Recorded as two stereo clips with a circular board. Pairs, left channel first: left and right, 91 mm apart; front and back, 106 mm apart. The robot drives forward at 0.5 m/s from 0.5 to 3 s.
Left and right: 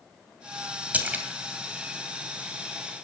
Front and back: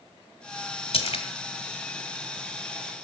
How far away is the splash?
About 2.0 m.